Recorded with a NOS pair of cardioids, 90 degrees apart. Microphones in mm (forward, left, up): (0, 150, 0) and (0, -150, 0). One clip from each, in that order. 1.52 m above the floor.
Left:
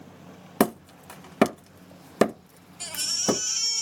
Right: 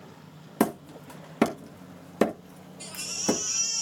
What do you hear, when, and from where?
0.6 s hammering: 40° left, 1.6 m
2.8 s a baby crying: 45° left, 1.9 m